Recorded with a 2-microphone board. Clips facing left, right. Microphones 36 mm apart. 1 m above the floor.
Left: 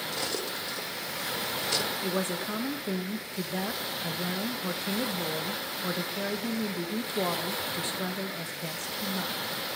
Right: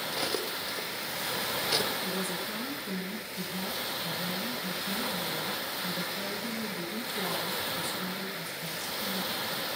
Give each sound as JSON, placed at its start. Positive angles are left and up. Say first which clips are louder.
{"t": 0.1, "sound": "cutlery clinking", "louder": "right 2 dB", "side_deg": -15, "distance_m": 0.6}
{"t": 2.0, "sound": "a woman speaking", "louder": "left 3 dB", "side_deg": 55, "distance_m": 1.2}